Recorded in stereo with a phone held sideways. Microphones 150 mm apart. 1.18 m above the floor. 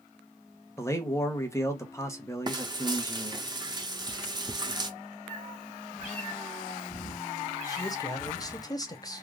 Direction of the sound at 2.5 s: 30° right (ahead or behind).